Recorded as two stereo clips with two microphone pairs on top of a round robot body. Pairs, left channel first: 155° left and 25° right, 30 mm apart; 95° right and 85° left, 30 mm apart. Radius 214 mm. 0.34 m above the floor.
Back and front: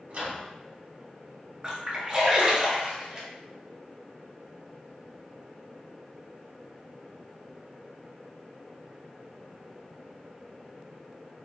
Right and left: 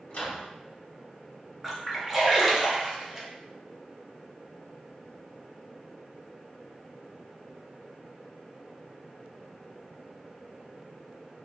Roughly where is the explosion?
I don't hear an explosion.